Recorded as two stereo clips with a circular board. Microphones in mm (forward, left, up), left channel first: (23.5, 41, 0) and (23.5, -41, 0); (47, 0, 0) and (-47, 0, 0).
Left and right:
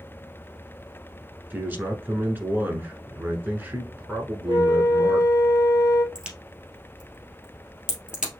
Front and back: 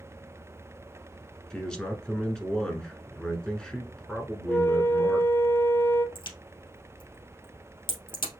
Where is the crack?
15° right, 2 m.